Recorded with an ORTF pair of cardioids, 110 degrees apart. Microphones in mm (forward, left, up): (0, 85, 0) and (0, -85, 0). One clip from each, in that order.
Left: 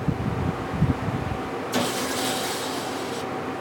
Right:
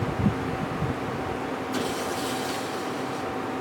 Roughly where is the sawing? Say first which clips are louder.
Left 5 dB; left.